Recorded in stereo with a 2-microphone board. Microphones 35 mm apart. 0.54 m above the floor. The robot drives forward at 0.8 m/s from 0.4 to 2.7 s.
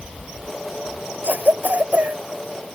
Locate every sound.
1.2 s a cough: 70° right (ahead or behind); by 2.2 s 60° right (ahead or behind)